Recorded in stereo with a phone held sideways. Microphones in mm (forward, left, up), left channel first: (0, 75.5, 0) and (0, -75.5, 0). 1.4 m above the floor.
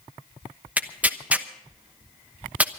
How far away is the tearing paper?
About 1.0 m.